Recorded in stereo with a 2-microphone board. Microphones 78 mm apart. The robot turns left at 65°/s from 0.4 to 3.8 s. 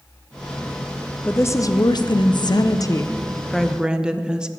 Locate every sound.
1.2 s a woman speaking: 155° left, 0.5 m; by 4.5 s 10° right, 0.5 m